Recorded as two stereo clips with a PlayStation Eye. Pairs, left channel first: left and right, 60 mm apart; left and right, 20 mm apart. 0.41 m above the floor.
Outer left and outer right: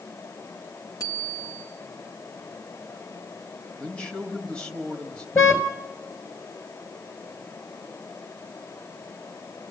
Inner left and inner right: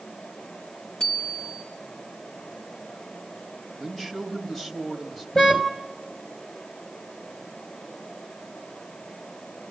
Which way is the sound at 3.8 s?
15° left (ahead or behind).